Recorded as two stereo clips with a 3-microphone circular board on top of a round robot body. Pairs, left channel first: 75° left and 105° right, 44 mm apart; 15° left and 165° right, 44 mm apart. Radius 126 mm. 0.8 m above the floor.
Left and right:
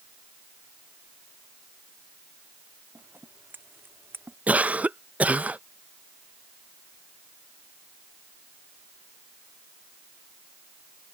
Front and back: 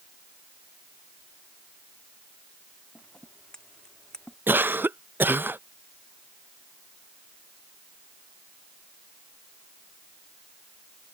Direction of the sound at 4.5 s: 150° right.